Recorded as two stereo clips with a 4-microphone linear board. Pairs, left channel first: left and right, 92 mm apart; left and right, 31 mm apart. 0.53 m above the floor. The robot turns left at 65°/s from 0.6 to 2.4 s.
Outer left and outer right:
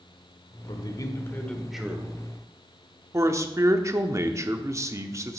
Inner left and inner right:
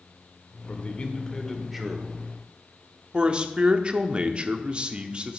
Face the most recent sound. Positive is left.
turn(degrees=-35)  # may be behind; listen again after turning